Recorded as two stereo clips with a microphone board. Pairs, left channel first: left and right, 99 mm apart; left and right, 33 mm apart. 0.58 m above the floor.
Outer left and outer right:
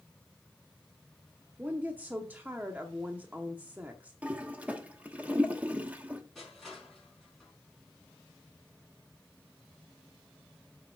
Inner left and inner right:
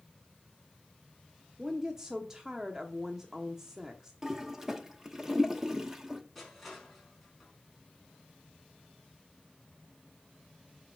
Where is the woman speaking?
20° right (ahead or behind), 0.8 m.